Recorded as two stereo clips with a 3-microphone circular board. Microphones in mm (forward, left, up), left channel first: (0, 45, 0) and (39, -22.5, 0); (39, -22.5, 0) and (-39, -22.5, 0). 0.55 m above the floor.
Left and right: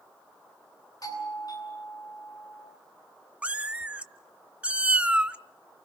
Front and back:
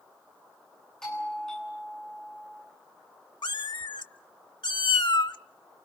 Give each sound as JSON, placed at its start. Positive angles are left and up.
{"t": 1.0, "sound": "a doorbell", "azimuth_deg": 80, "distance_m": 9.0}
{"t": 3.4, "sound": "a cat meowing", "azimuth_deg": 15, "distance_m": 0.7}